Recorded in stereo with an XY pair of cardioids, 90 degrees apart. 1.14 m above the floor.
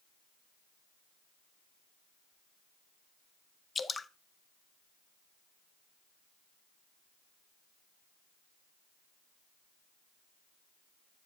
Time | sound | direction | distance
3.8 | dripping | 35° left | 0.6 m